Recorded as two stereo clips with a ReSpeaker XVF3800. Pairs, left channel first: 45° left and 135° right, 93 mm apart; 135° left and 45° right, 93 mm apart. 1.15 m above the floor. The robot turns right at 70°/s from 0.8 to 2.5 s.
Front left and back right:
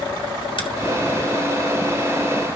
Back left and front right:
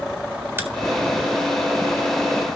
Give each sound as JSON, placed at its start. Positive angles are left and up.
{"t": 0.6, "sound": "a crack", "azimuth_deg": 20, "distance_m": 1.5}